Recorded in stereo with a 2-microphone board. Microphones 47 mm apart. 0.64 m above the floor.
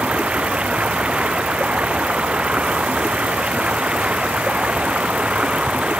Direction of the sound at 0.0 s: 20° right (ahead or behind).